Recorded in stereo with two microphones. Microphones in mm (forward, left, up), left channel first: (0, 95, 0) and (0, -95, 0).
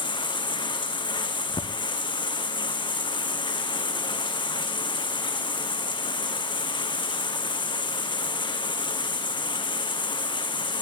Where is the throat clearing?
I don't hear throat clearing.